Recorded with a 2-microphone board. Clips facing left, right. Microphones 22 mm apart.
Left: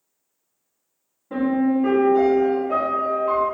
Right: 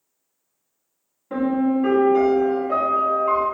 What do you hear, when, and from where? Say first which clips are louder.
1.3 s a piano: even; 30° right (ahead or behind), 1.2 m